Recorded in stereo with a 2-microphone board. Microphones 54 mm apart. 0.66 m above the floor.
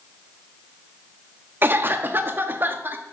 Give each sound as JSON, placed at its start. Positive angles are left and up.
{"t": 1.6, "sound": "a cough", "side_deg": -35, "distance_m": 0.6}